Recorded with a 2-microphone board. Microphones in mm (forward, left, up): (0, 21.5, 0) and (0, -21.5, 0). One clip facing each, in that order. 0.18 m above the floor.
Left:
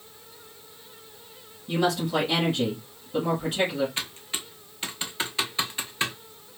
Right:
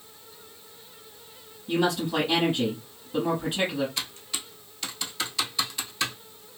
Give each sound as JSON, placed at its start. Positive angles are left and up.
{"t": 1.7, "sound": "a woman speaking", "side_deg": -5, "distance_m": 1.4}
{"t": 4.0, "sound": "typing on a keyboard", "side_deg": 30, "distance_m": 0.6}